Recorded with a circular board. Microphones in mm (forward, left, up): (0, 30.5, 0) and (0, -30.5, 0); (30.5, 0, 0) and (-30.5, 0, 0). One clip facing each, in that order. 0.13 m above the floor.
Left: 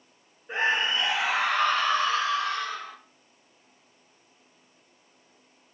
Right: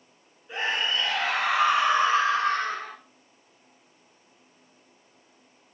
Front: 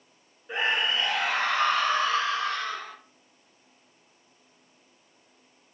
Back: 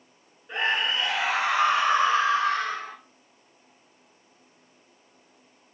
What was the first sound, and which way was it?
A scream, 80° left.